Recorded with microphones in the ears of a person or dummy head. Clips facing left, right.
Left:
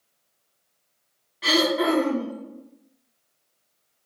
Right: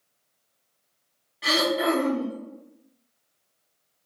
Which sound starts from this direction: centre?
Throat clearing, at 1.4 s.